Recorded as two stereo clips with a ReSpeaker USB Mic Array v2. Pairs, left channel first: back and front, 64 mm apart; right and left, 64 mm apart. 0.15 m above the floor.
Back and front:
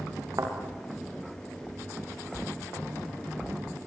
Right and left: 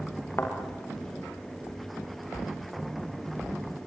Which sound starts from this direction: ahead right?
A thud, at 0.4 s.